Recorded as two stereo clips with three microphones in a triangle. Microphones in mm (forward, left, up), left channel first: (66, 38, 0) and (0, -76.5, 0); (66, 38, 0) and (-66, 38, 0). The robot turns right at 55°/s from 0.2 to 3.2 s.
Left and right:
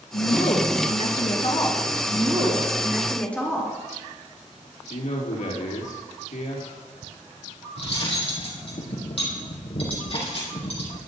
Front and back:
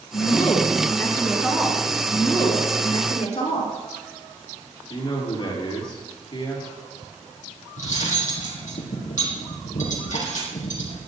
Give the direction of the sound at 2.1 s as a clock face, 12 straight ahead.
3 o'clock.